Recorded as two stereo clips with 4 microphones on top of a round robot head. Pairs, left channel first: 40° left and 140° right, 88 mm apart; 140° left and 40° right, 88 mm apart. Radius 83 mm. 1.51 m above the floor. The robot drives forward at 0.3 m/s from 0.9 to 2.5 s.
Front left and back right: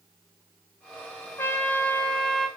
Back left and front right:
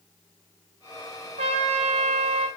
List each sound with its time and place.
1.4 s a trumpet: 30° right, 0.8 m; by 2.5 s 50° right, 0.5 m